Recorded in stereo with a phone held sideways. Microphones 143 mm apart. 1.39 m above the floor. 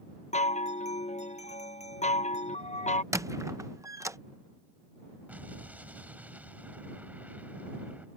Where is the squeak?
20° right (ahead or behind).